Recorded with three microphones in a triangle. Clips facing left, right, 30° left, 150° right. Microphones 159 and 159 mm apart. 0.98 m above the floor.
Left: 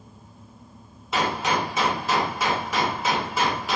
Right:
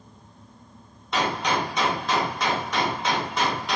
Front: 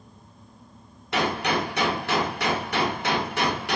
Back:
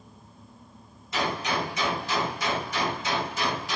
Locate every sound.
1.1 s a gunshot: 5° left, 0.6 m